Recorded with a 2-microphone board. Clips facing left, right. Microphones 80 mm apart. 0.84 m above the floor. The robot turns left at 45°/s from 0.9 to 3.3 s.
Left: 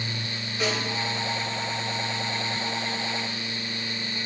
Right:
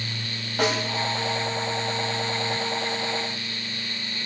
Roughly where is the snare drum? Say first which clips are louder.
Right 4 dB; right.